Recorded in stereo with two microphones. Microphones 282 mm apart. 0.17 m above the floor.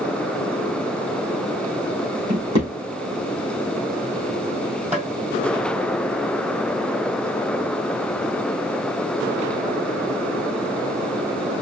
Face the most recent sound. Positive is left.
turn(degrees=-25)  # may be behind; listen again after turning